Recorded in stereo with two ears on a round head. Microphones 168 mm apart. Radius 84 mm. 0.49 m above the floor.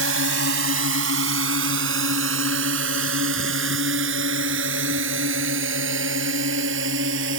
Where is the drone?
70° right (ahead or behind).